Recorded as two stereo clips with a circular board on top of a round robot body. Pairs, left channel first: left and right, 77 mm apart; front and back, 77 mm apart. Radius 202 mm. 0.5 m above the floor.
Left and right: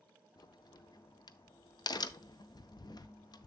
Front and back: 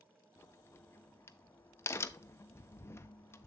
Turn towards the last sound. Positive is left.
turn(degrees=60)